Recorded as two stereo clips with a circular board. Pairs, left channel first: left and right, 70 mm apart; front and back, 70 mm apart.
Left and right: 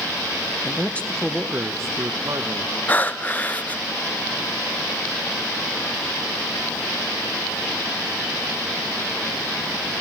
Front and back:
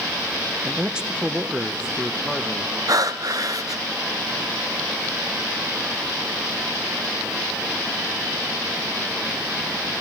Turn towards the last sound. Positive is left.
turn(degrees=155)